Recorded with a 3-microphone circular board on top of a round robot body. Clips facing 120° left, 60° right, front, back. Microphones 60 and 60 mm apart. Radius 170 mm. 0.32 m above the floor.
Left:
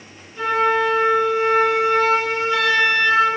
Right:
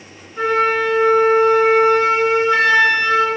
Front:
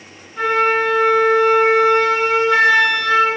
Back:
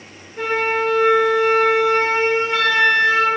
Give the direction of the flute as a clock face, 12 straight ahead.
12 o'clock.